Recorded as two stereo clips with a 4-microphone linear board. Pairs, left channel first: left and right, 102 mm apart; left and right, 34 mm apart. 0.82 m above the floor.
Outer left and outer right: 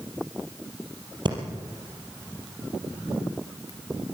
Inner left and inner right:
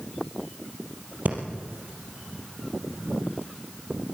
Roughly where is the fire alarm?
No fire alarm in this recording.